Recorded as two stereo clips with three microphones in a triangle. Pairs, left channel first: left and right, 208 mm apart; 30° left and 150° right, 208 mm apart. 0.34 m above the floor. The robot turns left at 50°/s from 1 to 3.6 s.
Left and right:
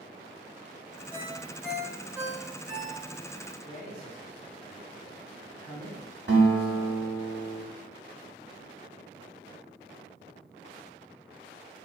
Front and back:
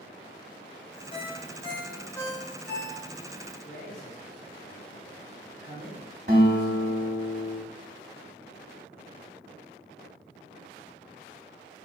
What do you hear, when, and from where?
1.1 s a ringtone: 30° left, 0.7 m; by 3.0 s 65° right, 0.7 m
3.6 s a man speaking: 40° left, 1.7 m
6.3 s a guitar: 115° right, 1.2 m